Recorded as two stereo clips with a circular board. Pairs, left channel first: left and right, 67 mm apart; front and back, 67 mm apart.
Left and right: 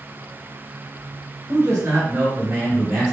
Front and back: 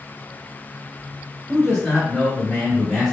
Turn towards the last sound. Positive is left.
turn(degrees=35)